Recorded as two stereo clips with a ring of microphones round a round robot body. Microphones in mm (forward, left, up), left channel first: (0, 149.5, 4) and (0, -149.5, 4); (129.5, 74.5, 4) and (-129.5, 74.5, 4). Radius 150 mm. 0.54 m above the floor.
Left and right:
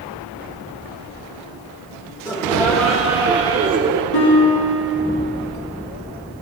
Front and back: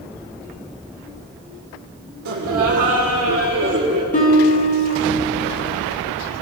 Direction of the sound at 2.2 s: 165° left.